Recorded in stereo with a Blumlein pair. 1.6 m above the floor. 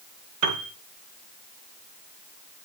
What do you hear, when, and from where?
0.4 s a piano: 45° right, 2.5 m